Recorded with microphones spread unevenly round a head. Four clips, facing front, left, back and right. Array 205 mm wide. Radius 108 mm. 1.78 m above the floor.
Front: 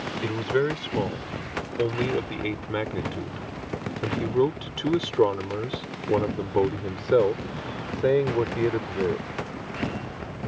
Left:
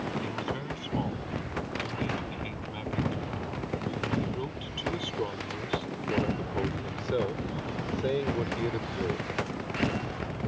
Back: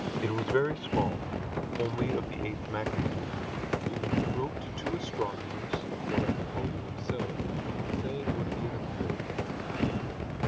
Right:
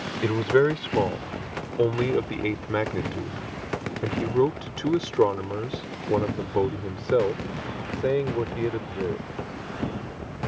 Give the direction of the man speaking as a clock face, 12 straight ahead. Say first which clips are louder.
Right 14 dB, front 4 dB; 3 o'clock.